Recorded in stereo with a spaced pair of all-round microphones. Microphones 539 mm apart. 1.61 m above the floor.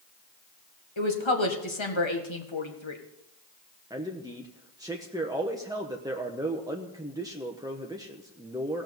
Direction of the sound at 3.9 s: 5° right (ahead or behind).